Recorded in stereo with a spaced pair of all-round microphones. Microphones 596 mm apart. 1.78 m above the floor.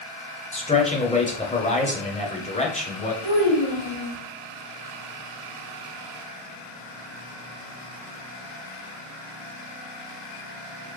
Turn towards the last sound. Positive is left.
turn(degrees=55)  # may be behind; listen again after turning